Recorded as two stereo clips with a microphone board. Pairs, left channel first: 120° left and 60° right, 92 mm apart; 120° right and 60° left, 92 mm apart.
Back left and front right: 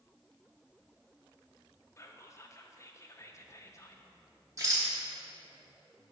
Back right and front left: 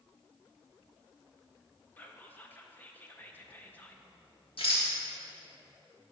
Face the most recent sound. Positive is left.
turn(degrees=-115)